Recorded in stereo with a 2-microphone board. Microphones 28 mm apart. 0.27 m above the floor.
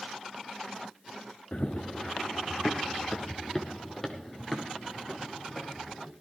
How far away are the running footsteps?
About 1.7 m.